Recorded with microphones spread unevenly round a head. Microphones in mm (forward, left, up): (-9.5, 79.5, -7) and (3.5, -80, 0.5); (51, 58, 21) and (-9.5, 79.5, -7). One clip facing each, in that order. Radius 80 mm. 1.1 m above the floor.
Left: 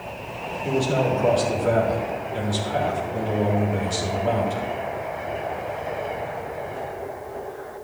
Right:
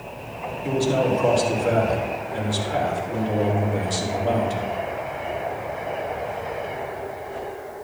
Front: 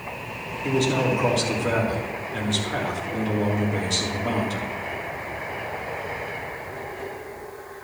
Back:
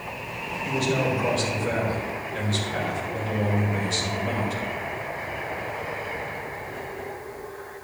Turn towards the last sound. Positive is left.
turn(degrees=-10)